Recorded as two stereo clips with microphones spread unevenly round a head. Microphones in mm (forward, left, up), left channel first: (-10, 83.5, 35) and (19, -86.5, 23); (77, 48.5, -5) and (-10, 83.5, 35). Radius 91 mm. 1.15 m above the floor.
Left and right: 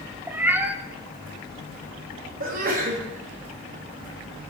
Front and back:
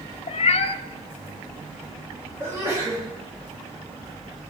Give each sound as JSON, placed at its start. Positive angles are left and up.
{"t": 0.3, "sound": "a cat meowing", "azimuth_deg": 0, "distance_m": 0.5}
{"t": 2.4, "sound": "a sneeze", "azimuth_deg": -120, "distance_m": 2.0}